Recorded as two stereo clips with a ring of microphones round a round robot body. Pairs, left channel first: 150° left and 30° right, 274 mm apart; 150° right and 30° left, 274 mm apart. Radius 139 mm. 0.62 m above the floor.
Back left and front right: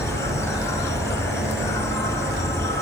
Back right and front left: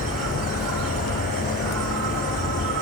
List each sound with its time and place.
0.0 s an insect: 70° left, 1.9 m